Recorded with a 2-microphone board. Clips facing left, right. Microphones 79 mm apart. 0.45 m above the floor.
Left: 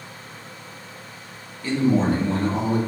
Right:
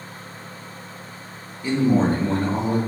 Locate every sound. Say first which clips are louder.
1.6 s a man speaking: right 1 dB; 15° right (ahead or behind), 0.7 m; by 2.8 s 50° right (ahead or behind), 1.4 m